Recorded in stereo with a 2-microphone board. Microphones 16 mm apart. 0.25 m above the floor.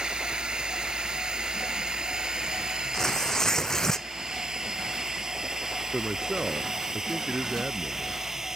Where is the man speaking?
60° right (ahead or behind).